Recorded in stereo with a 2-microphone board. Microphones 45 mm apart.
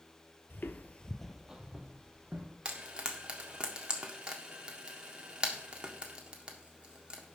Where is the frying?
20° right (ahead or behind), 1.6 m.